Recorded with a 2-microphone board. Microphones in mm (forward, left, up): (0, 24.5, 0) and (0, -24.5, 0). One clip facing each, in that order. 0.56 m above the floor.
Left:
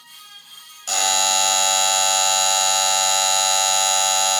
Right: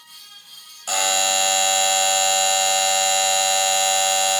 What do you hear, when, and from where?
0.9 s a buzzer: 10° right (ahead or behind), 1.2 m